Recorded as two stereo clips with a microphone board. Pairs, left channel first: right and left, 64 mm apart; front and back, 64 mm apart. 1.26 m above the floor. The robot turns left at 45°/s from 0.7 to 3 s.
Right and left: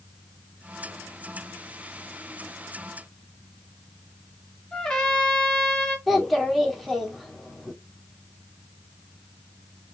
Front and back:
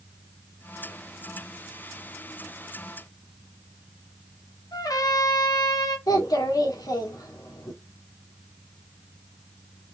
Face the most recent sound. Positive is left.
turn(degrees=0)